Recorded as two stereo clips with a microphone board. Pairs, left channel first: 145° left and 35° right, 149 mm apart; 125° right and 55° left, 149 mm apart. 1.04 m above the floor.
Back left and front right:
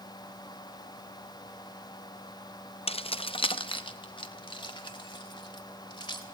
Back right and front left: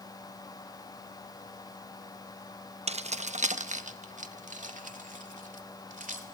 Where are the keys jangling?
100° left, 0.6 m; by 6.2 s 85° left, 2.5 m.